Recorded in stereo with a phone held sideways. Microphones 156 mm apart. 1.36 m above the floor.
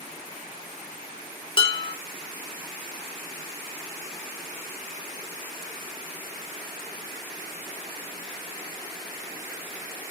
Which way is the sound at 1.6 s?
35° left (ahead or behind).